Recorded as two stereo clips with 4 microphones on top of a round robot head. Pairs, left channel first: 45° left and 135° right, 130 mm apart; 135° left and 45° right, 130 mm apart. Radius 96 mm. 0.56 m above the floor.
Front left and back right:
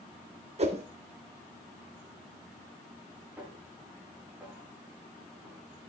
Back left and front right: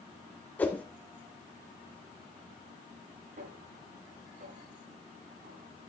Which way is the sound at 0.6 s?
150° right.